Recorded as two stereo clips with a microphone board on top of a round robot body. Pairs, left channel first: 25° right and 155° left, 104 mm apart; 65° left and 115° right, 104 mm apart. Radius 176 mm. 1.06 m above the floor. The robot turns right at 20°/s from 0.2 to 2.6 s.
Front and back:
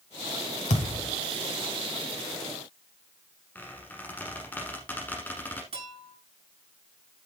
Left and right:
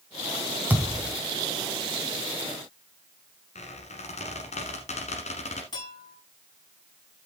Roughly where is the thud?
Ahead right.